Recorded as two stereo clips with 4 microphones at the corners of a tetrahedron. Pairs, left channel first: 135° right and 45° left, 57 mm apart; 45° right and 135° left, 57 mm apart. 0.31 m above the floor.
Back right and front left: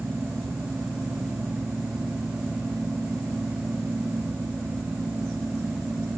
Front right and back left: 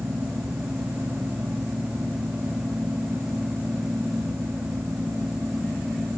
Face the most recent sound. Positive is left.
No sound to turn to.